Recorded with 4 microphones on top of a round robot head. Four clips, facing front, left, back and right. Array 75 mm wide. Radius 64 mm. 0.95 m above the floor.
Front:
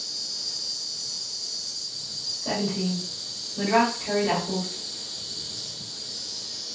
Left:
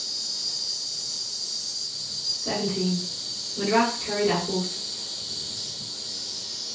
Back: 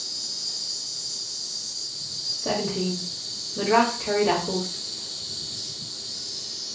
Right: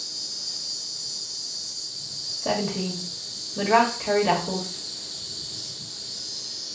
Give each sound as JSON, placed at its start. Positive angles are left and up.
{"t": 0.0, "sound": "an insect", "azimuth_deg": 55, "distance_m": 1.6}
{"t": 2.4, "sound": "a woman speaking", "azimuth_deg": -115, "distance_m": 1.7}